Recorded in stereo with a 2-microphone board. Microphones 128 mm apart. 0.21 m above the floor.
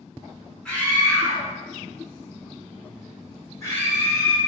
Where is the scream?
5° left (ahead or behind), 1.5 m; by 4.4 s 25° left (ahead or behind), 1.8 m.